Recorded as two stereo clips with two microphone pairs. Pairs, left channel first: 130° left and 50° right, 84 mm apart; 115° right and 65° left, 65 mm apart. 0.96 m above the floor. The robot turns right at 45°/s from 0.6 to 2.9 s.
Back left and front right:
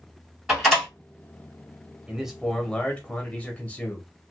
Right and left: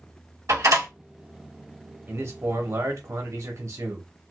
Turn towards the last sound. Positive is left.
turn(degrees=60)